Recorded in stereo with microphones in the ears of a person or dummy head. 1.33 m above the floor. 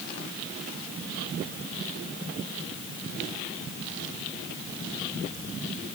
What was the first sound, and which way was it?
Only background noise.